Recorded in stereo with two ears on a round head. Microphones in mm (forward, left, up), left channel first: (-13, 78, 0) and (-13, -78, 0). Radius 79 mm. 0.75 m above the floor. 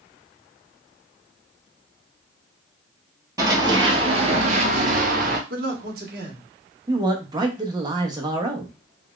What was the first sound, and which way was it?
Running footsteps, 20° right (ahead or behind).